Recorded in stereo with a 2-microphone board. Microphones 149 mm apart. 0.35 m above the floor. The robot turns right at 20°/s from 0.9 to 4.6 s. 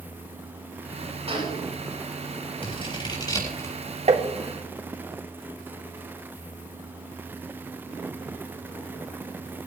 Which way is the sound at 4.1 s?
50° right (ahead or behind).